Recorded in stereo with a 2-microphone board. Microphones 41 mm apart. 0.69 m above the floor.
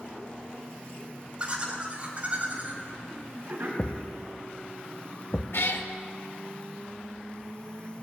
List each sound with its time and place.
1.4 s laughter: 30° right (ahead or behind), 4 m; by 3.7 s 45° right (ahead or behind), 5 m
3.8 s a thud: 55° left (ahead or behind), 0.6 m
5.5 s a cat meowing: 70° left (ahead or behind), 0.8 m